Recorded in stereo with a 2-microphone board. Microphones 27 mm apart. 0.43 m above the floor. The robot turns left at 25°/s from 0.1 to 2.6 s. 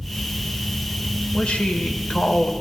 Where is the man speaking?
45° left (ahead or behind), 1.7 m.